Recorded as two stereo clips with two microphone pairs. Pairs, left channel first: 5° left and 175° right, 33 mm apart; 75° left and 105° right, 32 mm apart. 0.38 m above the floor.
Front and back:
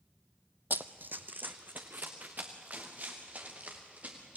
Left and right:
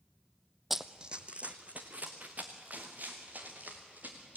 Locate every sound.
0.7 s running footsteps: 170° left, 0.8 m; by 4.4 s 135° right, 5 m